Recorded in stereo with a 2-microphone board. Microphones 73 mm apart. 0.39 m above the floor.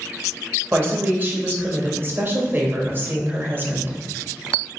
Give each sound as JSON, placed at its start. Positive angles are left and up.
{"t": 0.7, "sound": "a woman speaking", "side_deg": -30, "distance_m": 1.1}